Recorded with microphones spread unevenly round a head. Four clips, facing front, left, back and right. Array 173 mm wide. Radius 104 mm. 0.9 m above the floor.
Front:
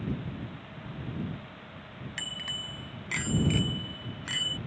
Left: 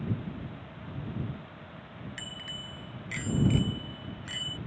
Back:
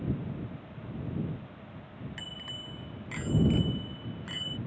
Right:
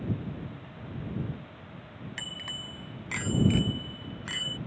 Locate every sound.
2.2 s a bicycle bell: 50° right